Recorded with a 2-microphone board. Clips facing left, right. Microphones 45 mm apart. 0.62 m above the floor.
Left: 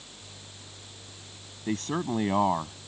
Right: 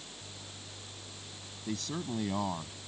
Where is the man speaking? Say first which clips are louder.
Left 7 dB; 50° left (ahead or behind).